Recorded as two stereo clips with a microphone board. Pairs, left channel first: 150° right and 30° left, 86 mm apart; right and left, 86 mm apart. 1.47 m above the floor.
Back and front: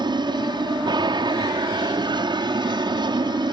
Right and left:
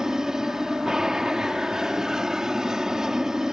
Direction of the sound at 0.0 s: 5° left.